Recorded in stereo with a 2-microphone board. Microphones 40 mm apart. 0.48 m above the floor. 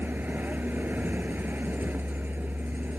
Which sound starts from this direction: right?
A vehicle, at 0.0 s.